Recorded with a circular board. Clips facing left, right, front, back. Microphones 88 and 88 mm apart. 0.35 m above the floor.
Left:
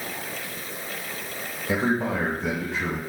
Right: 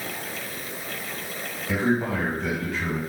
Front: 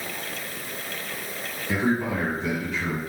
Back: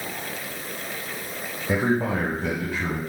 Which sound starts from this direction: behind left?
A man speaking, at 1.7 s.